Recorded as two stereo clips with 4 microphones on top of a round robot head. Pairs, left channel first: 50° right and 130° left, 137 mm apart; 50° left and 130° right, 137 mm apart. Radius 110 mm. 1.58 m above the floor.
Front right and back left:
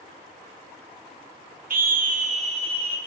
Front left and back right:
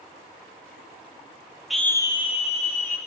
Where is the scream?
140° left, 0.7 m; by 3.0 s 80° left, 1.8 m.